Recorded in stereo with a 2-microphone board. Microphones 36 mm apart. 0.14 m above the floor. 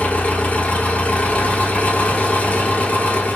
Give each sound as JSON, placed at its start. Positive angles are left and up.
{"t": 0.0, "sound": "an engine running", "side_deg": 40, "distance_m": 0.8}